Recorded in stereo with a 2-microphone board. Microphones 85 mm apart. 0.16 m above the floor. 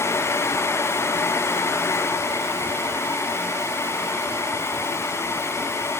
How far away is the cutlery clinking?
I don't hear cutlery clinking.